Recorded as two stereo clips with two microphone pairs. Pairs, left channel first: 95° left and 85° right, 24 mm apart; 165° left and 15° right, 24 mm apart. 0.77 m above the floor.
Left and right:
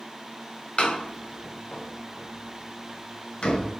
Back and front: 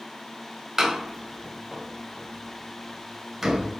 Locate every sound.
0.8 s a door slam: 55° left, 2.5 m